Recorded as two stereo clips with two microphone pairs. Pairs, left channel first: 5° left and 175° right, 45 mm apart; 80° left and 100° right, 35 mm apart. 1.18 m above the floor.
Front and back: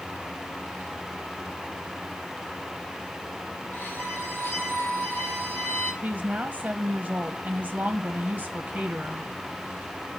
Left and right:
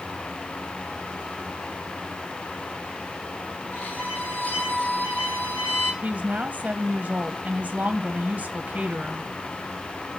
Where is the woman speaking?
120° right, 1.0 m.